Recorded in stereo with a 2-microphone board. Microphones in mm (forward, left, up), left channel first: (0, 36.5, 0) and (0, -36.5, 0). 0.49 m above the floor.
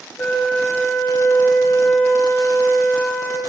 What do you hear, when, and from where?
0.2 s a flute: 25° left (ahead or behind), 1.4 m